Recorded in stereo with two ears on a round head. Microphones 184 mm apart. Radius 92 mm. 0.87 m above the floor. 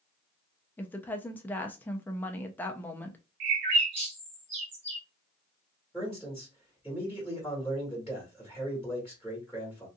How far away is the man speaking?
About 1.5 m.